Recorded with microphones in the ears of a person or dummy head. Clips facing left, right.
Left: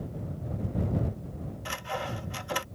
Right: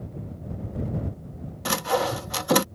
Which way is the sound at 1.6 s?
65° right (ahead or behind).